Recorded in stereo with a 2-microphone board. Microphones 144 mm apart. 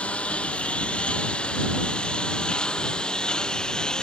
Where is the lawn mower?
10° left (ahead or behind); by 4.0 s 5° left (ahead or behind).